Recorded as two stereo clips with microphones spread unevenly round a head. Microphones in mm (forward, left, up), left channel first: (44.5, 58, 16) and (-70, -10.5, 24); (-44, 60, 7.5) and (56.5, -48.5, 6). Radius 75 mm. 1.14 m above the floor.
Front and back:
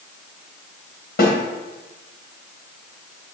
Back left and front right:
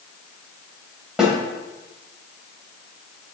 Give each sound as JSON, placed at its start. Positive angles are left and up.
{"t": 1.2, "sound": "a snare drum", "azimuth_deg": 40, "distance_m": 2.5}